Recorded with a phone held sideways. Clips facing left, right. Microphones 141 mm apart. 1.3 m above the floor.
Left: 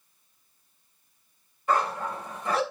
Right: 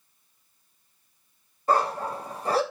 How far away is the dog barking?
About 2.5 m.